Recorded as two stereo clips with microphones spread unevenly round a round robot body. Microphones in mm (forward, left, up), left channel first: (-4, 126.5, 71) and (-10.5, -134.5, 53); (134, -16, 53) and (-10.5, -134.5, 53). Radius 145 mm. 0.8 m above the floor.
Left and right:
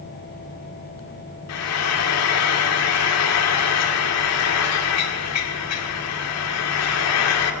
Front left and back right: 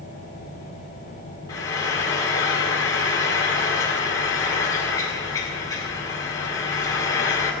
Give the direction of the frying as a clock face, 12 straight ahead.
8 o'clock.